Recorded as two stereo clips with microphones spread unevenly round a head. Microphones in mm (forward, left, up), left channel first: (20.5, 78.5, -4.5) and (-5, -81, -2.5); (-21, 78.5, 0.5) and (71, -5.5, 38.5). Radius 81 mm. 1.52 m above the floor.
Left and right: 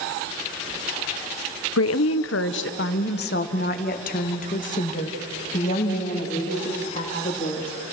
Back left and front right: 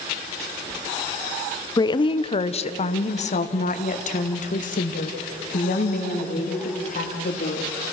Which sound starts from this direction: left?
A woman speaking, at 1.8 s.